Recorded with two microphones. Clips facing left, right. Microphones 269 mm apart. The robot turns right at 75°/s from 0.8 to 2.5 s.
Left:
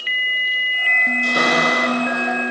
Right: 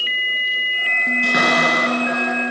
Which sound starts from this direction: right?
A cupboard door, at 1.2 s.